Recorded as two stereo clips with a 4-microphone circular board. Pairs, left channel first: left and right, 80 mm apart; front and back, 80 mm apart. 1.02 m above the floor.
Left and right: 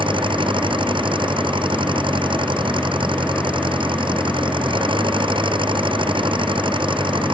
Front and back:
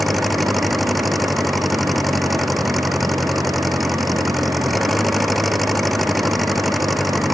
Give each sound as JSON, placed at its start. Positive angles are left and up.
{"t": 0.0, "sound": "an engine running", "azimuth_deg": -90}